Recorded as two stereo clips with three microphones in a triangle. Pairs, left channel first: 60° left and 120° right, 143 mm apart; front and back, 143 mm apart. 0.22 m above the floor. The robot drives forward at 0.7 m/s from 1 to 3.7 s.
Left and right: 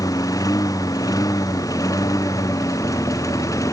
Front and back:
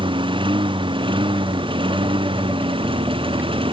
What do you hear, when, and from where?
0.0 s a lawn mower: 125° left; by 3.7 s 130° left